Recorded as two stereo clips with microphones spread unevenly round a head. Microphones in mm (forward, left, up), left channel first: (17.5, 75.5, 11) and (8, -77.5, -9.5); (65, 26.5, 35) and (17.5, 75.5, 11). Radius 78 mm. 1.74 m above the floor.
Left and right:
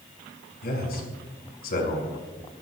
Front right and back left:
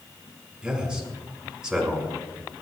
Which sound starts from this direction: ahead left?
A man speaking, at 0.6 s.